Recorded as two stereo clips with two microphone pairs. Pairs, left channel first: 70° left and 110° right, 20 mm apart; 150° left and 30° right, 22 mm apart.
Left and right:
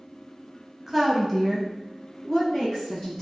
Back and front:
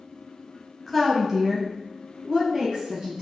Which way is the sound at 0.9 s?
Straight behind.